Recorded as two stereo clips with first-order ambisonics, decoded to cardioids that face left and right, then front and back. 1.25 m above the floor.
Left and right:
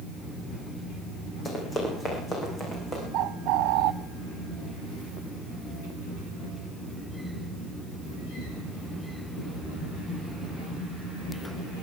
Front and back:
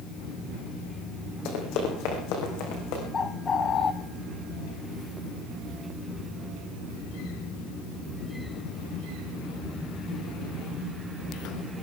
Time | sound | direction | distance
1.4 | running footsteps | 20° left | 4.5 m
3.1 | a bird | 70° right | 0.7 m